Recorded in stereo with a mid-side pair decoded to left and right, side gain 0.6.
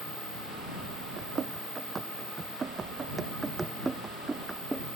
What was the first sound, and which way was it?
Running footsteps, 40° right.